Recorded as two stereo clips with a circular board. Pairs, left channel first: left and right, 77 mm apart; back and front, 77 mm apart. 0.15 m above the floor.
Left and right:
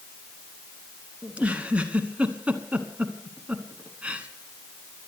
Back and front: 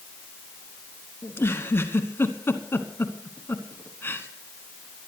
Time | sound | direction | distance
1.2 | a giggle | 150° right | 1.3 m